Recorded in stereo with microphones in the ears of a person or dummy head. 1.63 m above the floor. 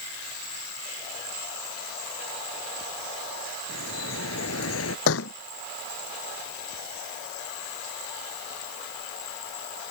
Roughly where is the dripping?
Left.